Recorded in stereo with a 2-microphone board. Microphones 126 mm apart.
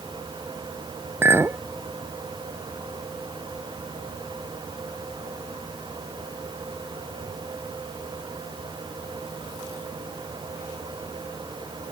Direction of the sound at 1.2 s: 20° right (ahead or behind).